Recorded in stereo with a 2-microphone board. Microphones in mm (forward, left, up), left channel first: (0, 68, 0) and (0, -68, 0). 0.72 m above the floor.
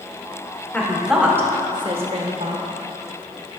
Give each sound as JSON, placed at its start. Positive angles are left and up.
{"t": 0.7, "sound": "a woman speaking", "side_deg": 10, "distance_m": 1.8}